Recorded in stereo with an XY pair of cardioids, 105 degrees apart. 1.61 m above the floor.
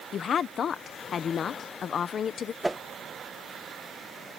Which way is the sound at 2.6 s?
10° right.